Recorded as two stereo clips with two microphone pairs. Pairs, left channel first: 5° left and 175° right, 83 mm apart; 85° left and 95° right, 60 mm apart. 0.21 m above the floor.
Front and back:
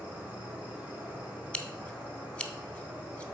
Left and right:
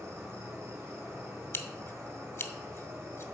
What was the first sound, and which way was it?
An insect, 110° right.